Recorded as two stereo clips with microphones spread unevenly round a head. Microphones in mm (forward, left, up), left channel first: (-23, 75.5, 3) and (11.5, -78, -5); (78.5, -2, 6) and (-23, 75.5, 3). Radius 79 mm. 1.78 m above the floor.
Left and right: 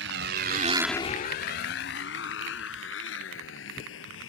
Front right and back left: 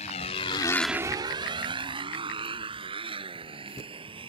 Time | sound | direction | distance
0.0 | a motorcycle | 85° right | ?